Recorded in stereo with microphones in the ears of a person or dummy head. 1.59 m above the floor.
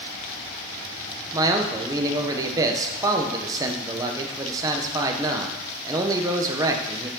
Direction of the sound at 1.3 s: 20° right (ahead or behind).